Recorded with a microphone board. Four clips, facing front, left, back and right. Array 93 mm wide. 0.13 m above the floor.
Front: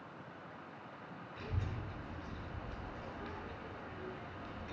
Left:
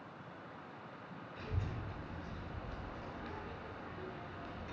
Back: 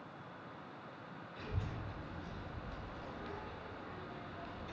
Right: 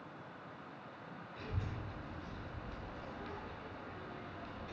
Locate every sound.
1.4 s a child speaking: 30° left, 1.4 m